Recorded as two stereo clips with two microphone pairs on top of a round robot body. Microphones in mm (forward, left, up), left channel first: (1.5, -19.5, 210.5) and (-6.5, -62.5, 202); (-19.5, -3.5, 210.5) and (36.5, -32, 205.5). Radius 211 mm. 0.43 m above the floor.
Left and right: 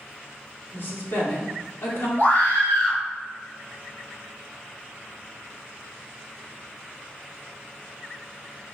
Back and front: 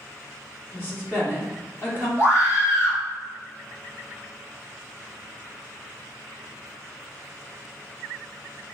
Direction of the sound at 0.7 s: 100° left.